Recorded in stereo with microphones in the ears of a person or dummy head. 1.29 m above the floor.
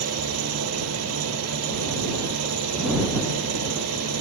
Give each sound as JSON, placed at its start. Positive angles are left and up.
{"t": 0.0, "sound": "an engine running", "side_deg": -85}